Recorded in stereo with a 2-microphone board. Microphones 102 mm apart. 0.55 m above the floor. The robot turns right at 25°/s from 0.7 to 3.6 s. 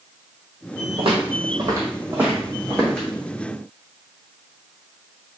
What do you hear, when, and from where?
1.0 s footsteps: 60° right (ahead or behind), 1.1 m; by 3.1 s 10° left (ahead or behind), 1.9 m